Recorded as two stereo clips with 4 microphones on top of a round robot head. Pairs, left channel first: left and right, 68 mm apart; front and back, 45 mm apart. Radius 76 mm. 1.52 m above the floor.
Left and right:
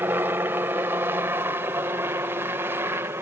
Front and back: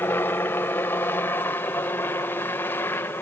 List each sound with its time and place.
0.0 s a helicopter: 30° right; by 3.2 s 35° right